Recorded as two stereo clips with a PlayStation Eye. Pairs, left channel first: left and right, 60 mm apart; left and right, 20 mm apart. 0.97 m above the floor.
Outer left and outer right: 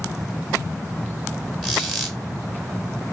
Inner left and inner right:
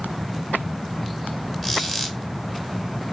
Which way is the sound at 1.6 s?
Centre (ahead or behind).